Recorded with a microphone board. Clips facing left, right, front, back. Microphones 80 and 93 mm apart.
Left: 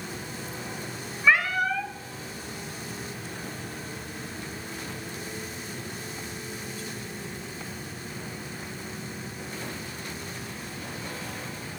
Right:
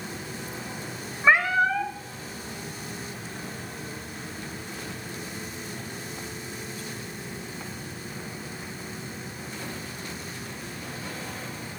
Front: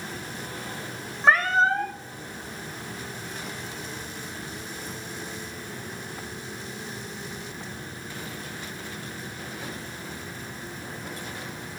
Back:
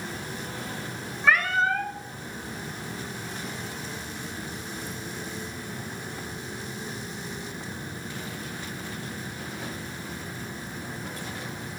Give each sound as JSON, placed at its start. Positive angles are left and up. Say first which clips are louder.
{"t": 1.2, "sound": "a cat meowing", "louder": "right 3 dB, front 3 dB", "azimuth_deg": -40, "distance_m": 1.0}